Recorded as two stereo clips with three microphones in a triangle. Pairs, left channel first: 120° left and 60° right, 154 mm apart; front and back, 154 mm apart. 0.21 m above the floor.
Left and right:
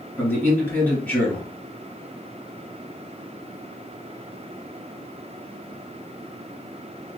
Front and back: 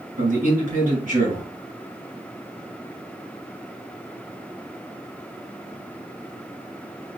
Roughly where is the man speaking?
Behind.